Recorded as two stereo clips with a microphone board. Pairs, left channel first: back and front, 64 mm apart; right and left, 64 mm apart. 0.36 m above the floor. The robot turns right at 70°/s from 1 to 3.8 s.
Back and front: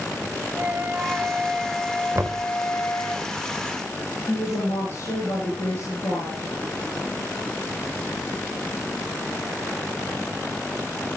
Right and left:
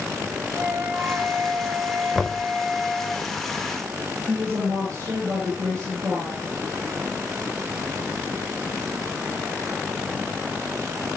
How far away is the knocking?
About 0.8 m.